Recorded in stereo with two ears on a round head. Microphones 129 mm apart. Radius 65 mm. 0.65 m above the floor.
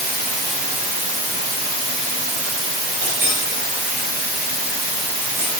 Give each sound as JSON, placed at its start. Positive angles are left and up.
{"t": 0.0, "sound": "running water", "side_deg": -45, "distance_m": 3.0}
{"t": 3.0, "sound": "a clink", "side_deg": -55, "distance_m": 3.0}